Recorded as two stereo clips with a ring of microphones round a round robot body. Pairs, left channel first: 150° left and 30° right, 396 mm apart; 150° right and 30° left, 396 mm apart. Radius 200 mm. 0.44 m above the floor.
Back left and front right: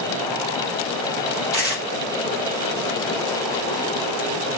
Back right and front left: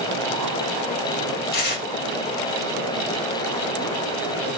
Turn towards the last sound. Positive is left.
turn(degrees=-95)